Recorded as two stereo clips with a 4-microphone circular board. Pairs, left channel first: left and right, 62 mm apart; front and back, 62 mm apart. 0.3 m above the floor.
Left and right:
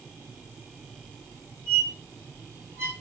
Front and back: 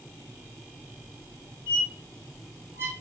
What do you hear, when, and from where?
1.7 s a squeak: 135° right, 1.9 m